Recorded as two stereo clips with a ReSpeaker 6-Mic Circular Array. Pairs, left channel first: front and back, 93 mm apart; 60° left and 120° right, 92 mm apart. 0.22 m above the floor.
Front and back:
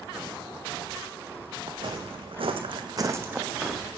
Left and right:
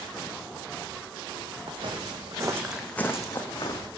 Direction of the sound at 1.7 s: 140° right.